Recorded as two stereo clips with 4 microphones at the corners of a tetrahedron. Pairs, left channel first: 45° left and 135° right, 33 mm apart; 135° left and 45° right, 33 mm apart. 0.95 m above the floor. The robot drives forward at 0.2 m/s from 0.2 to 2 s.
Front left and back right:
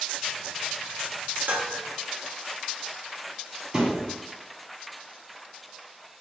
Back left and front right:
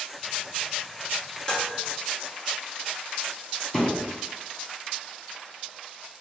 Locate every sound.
1.5 s dishes clattering: 160° right, 0.6 m
3.7 s a thud: 175° right, 0.9 m